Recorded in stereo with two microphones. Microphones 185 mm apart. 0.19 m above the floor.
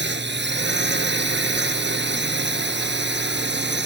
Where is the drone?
65° right (ahead or behind).